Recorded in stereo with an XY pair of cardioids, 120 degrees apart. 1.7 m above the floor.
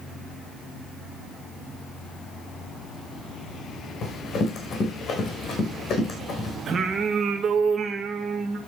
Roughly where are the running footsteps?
Ahead left.